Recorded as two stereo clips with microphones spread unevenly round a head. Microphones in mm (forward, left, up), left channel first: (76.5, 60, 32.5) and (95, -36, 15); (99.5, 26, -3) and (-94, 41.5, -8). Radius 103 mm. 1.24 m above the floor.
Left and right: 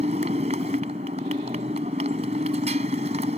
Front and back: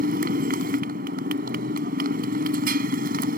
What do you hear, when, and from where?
0.0 s a motorcycle: 130° right